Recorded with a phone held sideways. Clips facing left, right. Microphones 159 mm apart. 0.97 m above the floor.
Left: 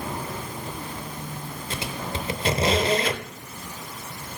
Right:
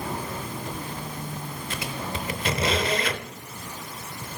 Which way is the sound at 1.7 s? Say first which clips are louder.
Left 1 dB; 30° left (ahead or behind).